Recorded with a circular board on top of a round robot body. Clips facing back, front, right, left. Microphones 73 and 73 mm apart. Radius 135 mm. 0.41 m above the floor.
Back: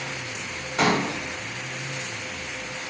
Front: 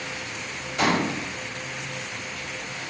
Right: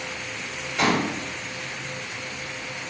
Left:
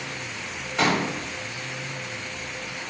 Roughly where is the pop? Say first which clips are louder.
Back 1 dB, even; behind left.